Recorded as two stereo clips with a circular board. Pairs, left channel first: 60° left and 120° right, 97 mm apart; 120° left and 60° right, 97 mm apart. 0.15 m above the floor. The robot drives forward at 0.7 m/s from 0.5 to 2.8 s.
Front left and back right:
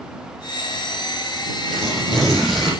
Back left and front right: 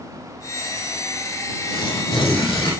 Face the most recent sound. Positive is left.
turn(degrees=150)